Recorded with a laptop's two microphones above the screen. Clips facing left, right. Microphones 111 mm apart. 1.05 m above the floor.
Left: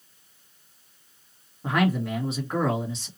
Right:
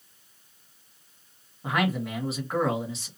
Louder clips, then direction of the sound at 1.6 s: Left 3 dB; centre (ahead or behind).